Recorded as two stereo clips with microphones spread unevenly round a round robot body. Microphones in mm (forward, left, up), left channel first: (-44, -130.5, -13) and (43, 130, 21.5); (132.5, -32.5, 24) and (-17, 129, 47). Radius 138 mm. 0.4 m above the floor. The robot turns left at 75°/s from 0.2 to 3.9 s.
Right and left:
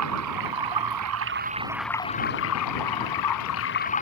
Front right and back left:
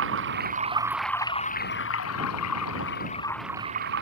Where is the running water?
105° left; by 4.0 s 175° right.